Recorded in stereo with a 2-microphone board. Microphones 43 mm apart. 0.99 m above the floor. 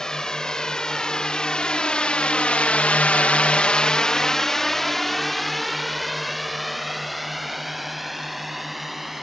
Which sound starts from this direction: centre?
A drone, at 0.0 s.